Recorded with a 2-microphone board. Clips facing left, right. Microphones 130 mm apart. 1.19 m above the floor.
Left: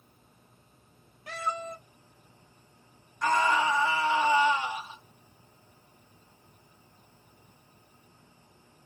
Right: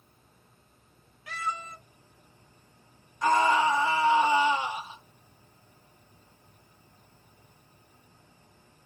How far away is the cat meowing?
About 1.3 m.